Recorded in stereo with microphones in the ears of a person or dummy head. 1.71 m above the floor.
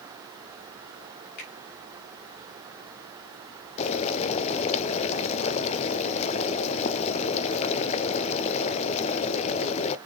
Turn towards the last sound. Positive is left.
turn(degrees=35)  # may be behind; listen again after turning